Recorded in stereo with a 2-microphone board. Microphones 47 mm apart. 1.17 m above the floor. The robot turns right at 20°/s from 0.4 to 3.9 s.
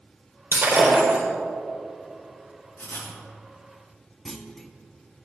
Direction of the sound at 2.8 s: 60° left (ahead or behind).